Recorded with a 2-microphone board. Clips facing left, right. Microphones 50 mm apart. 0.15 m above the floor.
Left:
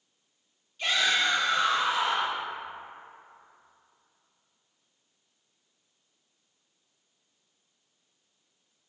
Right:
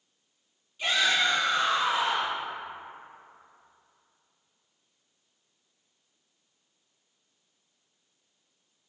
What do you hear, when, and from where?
0.8 s a shout: 10° right (ahead or behind), 1.1 m; by 2.4 s 40° right (ahead or behind), 1.4 m